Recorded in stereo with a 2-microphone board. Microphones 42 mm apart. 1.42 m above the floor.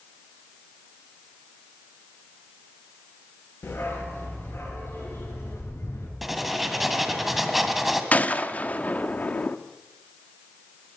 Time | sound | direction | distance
3.6 | a dog barking | 60° left (ahead or behind) | 8.5 m
6.2 | writing | 5° right (ahead or behind) | 2.0 m
8.1 | a gunshot | 35° left (ahead or behind) | 1.0 m